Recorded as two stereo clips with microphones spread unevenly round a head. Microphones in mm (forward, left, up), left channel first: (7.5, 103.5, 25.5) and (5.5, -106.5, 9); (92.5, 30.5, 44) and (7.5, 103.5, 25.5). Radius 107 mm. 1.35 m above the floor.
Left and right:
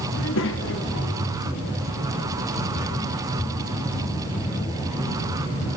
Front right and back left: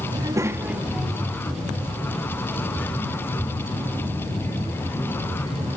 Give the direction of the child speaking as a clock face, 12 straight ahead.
9 o'clock.